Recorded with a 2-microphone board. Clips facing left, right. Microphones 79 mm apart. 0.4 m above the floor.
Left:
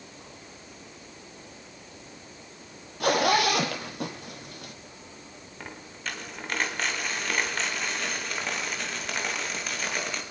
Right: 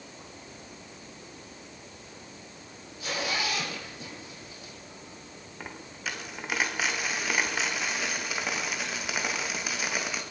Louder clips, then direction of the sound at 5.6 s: Even; 5° right (ahead or behind).